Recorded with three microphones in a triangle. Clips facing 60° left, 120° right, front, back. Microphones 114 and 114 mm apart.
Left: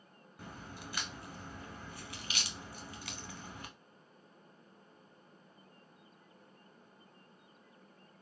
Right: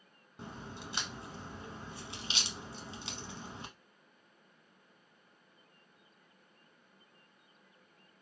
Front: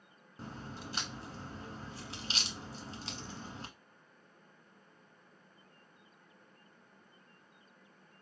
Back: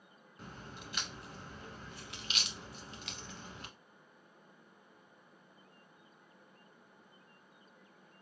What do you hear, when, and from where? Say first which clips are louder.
0.4 s a crack: right 3 dB, front 4 dB; 55° right, 0.8 m